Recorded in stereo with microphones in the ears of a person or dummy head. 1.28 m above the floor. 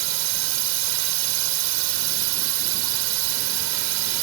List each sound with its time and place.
0.0 s a drone: 80° right